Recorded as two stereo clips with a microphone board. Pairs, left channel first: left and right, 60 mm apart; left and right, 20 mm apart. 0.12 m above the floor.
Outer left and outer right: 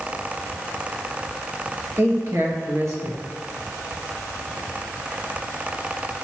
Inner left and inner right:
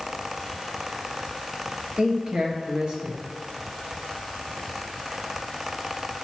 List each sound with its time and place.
2.0 s a man speaking: 50° right (ahead or behind), 2.5 m